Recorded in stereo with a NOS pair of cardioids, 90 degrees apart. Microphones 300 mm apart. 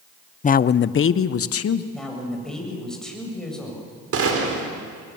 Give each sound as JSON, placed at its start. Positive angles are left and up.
{"t": 0.4, "sound": "a man speaking", "azimuth_deg": 25, "distance_m": 0.6}
{"t": 1.9, "sound": "a man speaking", "azimuth_deg": 0, "distance_m": 7.5}
{"t": 4.1, "sound": "a gunshot", "azimuth_deg": -50, "distance_m": 4.0}